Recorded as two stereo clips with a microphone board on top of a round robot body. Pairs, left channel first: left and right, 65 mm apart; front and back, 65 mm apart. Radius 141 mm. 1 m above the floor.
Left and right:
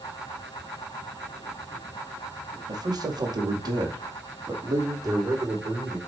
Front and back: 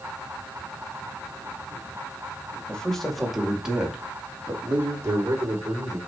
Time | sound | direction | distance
2.7 | a man speaking | 80° right | 2.5 m